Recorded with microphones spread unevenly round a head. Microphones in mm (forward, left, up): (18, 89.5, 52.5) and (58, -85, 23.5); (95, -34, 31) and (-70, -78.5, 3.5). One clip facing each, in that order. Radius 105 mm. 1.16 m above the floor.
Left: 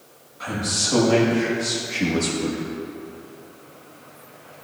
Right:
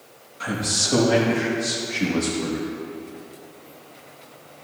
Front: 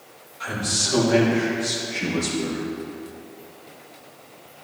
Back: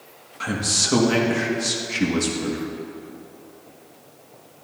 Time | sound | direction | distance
0.4 | a man speaking | 145° right | 1.5 m